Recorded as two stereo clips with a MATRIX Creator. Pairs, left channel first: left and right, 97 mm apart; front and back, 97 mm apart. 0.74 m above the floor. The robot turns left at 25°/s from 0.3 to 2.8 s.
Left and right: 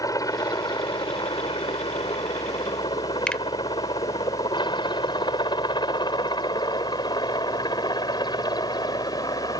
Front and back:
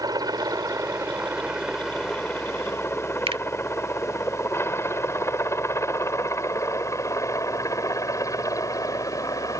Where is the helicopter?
135° left; by 9.6 s 50° left.